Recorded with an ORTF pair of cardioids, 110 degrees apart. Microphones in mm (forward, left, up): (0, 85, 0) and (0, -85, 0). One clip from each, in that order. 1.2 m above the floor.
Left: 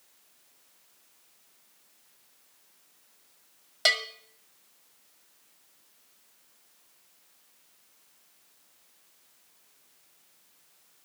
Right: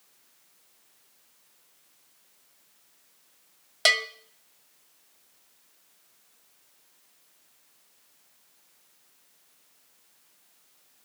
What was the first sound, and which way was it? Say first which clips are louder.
A bell: right 3 dB; 15° right.